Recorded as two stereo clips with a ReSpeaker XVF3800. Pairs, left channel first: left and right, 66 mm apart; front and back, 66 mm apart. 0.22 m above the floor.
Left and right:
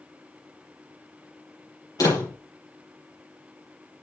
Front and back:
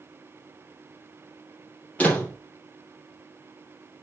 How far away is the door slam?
About 4.5 m.